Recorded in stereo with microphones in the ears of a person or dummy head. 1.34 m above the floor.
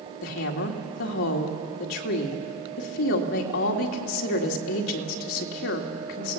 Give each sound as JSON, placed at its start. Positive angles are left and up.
{"t": 0.2, "sound": "a woman speaking", "side_deg": 75, "distance_m": 2.0}